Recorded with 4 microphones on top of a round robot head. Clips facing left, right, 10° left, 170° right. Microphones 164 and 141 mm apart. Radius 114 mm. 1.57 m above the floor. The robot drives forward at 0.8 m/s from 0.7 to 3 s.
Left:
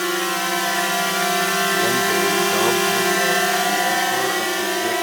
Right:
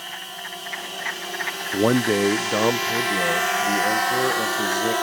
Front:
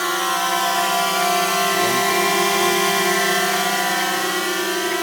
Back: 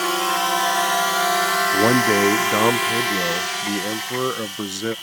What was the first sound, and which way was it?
A drone, 110° left.